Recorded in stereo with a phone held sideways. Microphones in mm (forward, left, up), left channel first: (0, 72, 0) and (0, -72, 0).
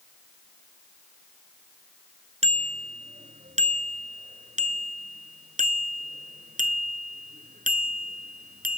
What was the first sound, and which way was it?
A bicycle bell, 50° right (ahead or behind).